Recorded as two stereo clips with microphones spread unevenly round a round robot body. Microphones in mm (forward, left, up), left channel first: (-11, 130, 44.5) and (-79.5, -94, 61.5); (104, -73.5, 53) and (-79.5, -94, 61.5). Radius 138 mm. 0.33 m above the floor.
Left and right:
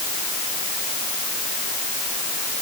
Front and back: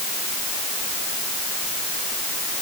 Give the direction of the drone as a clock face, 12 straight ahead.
No drone in this recording.